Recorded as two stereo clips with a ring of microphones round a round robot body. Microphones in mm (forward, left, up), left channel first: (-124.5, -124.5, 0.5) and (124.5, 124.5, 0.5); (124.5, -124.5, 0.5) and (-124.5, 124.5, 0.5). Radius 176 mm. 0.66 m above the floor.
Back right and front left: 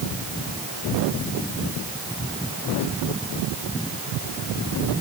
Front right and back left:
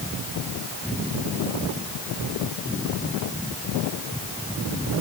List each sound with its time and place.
Only background noise.